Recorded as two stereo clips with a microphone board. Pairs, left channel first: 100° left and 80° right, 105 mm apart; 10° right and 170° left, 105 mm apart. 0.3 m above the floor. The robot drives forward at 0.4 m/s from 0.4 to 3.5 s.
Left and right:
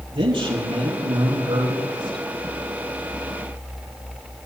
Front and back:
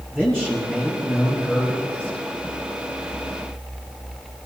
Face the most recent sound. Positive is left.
turn(degrees=-110)